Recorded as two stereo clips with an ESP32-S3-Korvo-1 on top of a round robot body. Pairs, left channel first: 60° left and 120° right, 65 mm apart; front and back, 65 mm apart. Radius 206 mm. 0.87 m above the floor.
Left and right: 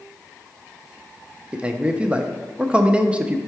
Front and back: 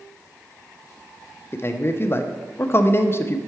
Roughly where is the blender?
No blender in this recording.